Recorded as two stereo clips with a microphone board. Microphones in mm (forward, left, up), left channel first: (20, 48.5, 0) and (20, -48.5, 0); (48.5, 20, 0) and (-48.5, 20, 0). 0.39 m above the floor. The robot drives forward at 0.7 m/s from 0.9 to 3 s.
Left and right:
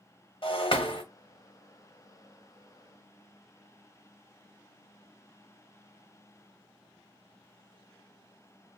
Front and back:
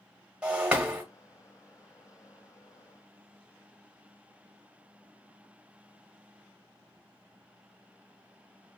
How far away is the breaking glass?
About 1.2 m.